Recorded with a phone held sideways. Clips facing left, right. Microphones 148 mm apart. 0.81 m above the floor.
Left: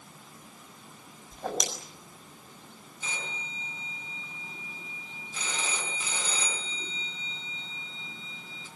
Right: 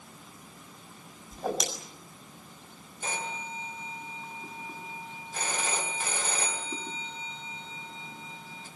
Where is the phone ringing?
55° right (ahead or behind), 5 m.